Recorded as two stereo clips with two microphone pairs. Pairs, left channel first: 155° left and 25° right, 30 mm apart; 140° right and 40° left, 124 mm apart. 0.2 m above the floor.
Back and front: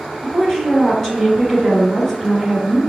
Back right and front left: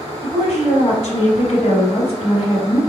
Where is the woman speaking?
140° right, 1.9 m.